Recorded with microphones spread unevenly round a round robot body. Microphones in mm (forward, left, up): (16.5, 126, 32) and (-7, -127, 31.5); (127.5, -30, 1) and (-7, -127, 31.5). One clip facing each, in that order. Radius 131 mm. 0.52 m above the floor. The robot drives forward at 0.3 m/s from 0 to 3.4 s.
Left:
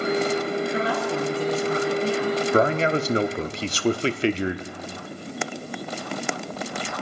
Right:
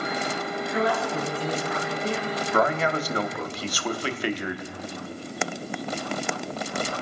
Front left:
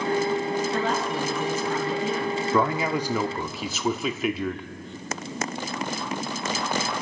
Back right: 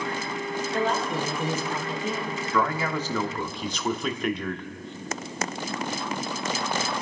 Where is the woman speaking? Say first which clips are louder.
Left 1 dB, even; 25° left, 7 m.